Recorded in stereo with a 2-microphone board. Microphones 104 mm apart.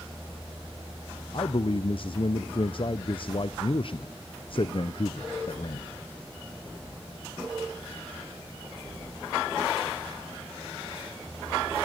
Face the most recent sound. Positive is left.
turn(degrees=55)  # may be behind; listen again after turning